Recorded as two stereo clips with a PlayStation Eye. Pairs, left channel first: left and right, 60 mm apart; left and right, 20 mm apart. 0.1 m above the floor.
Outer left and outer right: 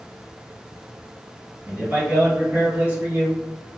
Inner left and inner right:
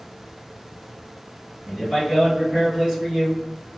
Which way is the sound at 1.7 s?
30° right (ahead or behind).